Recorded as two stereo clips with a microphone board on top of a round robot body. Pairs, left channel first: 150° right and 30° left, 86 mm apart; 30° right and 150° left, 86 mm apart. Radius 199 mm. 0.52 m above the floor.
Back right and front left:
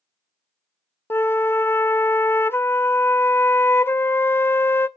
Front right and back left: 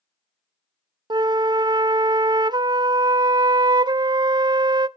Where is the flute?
155° left, 0.7 m.